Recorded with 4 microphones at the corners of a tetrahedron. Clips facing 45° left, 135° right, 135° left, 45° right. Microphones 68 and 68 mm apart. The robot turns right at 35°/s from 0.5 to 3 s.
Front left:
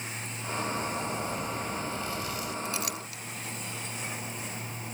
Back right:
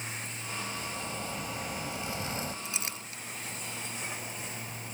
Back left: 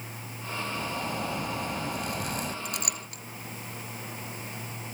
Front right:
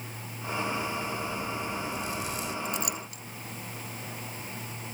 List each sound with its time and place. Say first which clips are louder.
0.8 s a zipper: front left 6 dB, even; 110° left; by 2.5 s 175° left
2.6 s a clink: front left 5 dB, front right 3 dB; 155° left; by 3.2 s 165° left